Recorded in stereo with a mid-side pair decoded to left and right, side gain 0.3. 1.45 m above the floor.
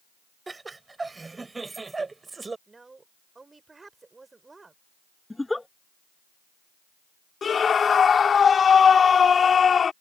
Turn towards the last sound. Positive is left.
turn(degrees=65)